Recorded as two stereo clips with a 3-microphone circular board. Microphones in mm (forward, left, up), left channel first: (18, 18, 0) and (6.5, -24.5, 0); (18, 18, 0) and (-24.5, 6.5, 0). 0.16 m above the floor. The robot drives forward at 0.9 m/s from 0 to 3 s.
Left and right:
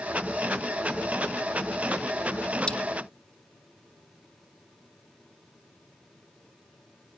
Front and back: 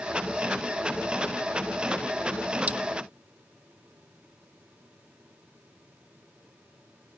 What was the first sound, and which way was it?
Cutlery clinking, 140° left.